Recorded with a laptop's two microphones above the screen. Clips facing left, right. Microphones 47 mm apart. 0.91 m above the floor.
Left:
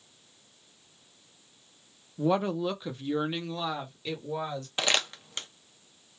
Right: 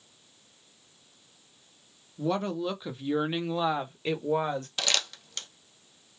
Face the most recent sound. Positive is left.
turn(degrees=25)  # may be behind; listen again after turning